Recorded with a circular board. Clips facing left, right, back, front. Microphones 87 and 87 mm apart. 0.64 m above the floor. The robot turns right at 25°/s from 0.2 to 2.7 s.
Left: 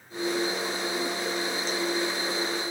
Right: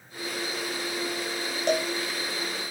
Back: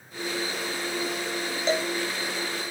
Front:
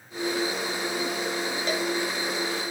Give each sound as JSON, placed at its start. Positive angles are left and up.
{"t": 1.7, "sound": "a cowbell", "azimuth_deg": -115}